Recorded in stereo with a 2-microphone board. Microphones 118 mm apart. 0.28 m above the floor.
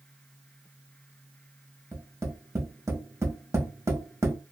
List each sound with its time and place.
1.9 s tapping: 25° right (ahead or behind), 1.0 m